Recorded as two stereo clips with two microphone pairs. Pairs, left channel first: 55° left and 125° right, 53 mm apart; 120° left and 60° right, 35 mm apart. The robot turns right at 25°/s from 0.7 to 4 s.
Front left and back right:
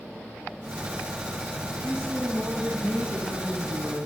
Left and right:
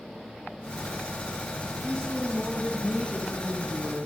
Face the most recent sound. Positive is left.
turn(degrees=-125)